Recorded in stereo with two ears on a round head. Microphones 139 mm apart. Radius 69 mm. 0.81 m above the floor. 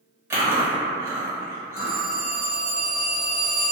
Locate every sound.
0.3 s chewing: 15° right (ahead or behind), 1.2 m
1.8 s a phone ringing: 60° right (ahead or behind), 0.7 m